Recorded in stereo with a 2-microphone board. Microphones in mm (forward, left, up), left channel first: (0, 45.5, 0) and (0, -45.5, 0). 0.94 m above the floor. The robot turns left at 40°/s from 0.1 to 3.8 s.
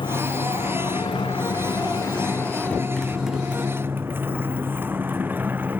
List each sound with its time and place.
0.0 s a motorcycle: 65° left (ahead or behind); by 5.8 s 20° right (ahead or behind)